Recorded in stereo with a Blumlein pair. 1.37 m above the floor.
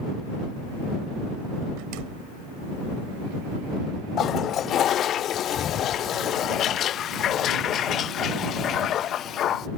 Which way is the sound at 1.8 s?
40° right.